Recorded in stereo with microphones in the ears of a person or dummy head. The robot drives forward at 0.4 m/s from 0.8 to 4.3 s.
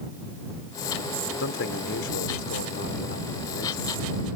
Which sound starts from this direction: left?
A man speaking, at 1.4 s.